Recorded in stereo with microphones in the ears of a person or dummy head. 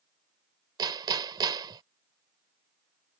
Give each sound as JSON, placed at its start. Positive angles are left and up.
{"t": 0.8, "sound": "hammering", "side_deg": -25}